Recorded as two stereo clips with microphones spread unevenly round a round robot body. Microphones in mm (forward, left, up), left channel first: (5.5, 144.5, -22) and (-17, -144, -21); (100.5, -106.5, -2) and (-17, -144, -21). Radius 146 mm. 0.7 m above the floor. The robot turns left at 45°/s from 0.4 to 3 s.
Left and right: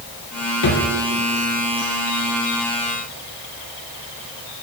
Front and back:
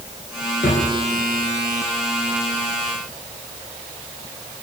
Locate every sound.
0.6 s a drawer: 55° left, 4 m; by 0.9 s 40° left, 4 m